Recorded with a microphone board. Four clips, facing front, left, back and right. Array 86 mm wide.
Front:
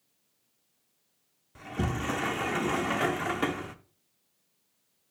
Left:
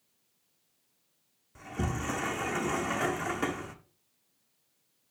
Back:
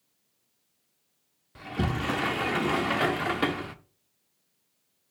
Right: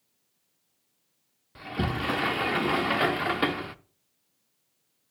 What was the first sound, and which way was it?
A sliding door, 115° right.